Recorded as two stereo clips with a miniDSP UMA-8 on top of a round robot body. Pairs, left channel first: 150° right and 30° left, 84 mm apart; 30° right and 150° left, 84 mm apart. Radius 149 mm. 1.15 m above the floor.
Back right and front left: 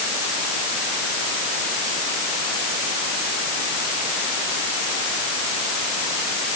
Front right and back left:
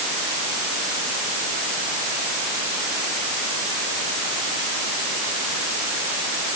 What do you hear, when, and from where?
Only background noise.